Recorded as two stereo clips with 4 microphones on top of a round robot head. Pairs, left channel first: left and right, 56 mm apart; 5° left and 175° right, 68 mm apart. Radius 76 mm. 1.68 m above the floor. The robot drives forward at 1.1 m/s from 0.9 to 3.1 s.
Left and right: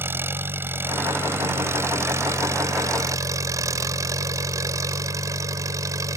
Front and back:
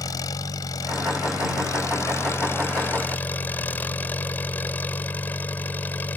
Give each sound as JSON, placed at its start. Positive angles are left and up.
{"t": 0.0, "sound": "an engine running", "azimuth_deg": -40}